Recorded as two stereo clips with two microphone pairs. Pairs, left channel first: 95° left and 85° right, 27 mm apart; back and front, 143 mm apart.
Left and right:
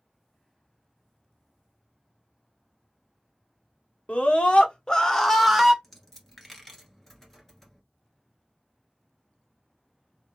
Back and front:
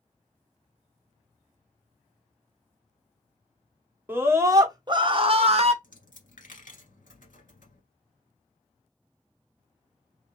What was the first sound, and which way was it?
A scream, 75° left.